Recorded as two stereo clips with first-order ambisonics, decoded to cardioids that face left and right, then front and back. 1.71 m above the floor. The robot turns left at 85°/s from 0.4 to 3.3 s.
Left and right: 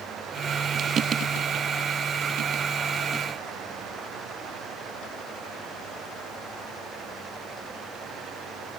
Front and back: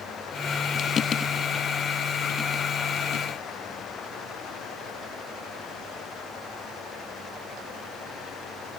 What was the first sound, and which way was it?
Only background noise.